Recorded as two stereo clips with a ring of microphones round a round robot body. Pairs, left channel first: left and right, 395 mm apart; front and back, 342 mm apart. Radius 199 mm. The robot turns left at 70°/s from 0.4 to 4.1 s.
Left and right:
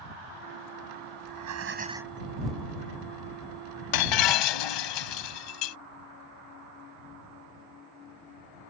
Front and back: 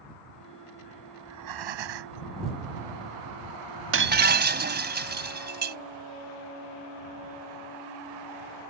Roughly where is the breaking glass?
Behind left.